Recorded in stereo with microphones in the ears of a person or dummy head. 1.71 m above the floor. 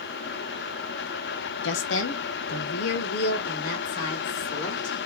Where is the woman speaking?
70° left (ahead or behind), 0.7 m; by 5.0 s 40° left (ahead or behind), 2.0 m.